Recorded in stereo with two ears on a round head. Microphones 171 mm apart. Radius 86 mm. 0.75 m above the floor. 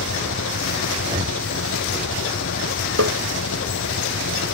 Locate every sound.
0.0 s an engine running: 70° left (ahead or behind)
1.0 s breathing: 25° right (ahead or behind)
3.0 s tapping: 85° right